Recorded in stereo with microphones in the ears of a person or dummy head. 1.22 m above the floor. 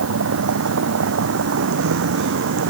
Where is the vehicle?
75° right (ahead or behind); by 2.7 s 70° right (ahead or behind).